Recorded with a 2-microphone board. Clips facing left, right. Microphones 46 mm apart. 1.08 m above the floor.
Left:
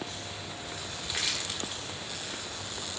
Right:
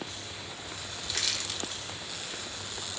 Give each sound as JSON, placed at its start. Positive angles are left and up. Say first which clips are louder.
{"t": 1.0, "sound": "crushing", "louder": "left 1 dB", "side_deg": 15, "distance_m": 1.6}